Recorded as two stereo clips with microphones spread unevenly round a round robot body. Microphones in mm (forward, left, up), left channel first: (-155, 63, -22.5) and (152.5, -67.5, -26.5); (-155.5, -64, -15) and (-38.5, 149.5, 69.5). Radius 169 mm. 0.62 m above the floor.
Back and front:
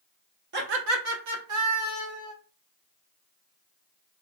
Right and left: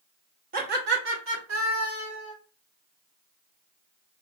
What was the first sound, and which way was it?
Laughter, straight ahead.